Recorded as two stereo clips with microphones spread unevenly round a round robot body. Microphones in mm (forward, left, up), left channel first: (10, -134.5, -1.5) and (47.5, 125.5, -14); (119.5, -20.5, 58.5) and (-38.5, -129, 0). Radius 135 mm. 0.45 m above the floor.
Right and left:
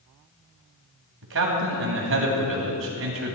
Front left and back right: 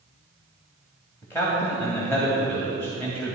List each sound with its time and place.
1.2 s a man speaking: 120° left, 2.5 m